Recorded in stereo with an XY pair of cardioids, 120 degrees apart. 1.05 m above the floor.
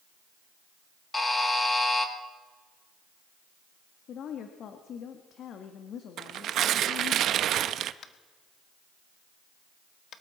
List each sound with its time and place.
1.1 s a buzzer: 20° left, 2 m
4.1 s a woman speaking: 60° left, 1.5 m
6.2 s tearing paper: 60° right, 0.6 m
8.0 s tapping: 50° left, 1.2 m